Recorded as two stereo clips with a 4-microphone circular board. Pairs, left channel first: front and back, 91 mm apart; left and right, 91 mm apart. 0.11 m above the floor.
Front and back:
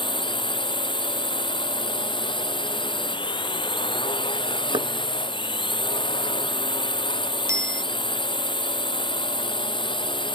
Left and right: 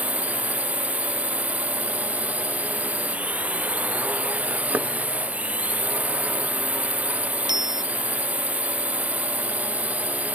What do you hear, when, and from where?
0.0 s a drone: 20° right
4.7 s knocking: 160° right
7.5 s a bicycle bell: 125° right